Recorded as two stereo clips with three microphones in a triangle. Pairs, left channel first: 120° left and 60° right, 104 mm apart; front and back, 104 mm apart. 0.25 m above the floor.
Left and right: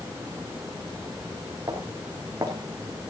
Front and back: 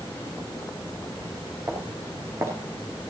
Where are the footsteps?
120° right, 5 m; by 3.1 s 115° right, 4 m.